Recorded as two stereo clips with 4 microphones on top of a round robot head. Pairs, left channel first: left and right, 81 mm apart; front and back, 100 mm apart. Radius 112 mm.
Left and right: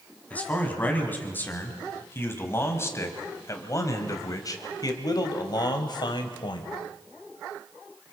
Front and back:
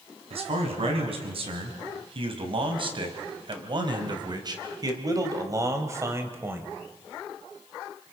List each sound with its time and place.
0.3 s a man speaking: 160° left, 4.5 m; by 6.7 s 110° left, 3 m